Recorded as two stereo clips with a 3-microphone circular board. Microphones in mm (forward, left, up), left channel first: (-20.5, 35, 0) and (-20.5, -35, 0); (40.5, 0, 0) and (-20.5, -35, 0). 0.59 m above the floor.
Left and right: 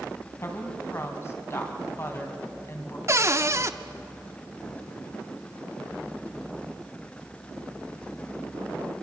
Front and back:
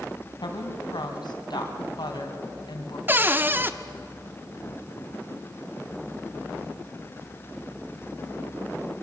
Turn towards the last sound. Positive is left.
turn(degrees=-105)